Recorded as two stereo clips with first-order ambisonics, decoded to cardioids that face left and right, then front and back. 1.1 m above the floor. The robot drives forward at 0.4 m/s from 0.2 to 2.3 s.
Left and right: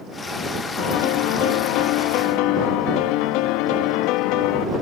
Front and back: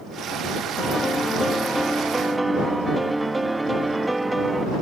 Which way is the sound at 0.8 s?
80° left.